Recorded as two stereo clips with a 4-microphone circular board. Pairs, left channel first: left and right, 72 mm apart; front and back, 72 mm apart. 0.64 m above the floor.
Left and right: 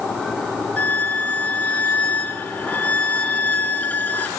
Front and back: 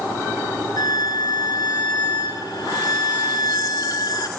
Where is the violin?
25° left, 4.5 m.